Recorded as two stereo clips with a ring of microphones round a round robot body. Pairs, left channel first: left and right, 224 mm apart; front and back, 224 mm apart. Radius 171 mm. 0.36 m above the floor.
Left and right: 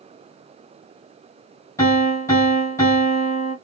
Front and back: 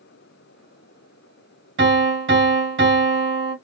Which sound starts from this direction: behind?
A piano, at 1.8 s.